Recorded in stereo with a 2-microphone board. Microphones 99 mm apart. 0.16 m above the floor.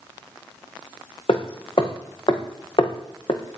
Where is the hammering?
65° left (ahead or behind), 3 m.